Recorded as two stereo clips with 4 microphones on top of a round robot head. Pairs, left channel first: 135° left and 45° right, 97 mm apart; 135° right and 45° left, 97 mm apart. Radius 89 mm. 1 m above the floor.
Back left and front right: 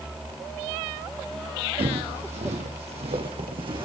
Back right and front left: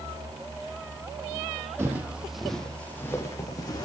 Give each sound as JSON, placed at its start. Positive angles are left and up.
{"t": 1.8, "sound": "footsteps", "azimuth_deg": -20, "distance_m": 2.0}